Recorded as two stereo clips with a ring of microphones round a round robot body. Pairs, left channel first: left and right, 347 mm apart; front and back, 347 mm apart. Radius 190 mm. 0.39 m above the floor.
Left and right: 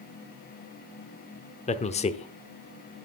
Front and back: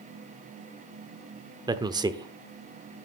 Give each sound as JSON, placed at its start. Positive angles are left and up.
{"t": 1.7, "sound": "a man speaking", "azimuth_deg": 120, "distance_m": 0.8}